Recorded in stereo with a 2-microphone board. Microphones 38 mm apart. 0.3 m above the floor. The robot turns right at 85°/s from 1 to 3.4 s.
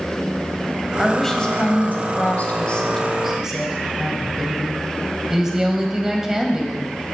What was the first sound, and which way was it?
A woman speaking, 5° right.